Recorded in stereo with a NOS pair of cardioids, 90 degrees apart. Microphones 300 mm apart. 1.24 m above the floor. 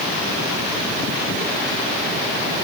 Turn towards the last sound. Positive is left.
No sound to turn to.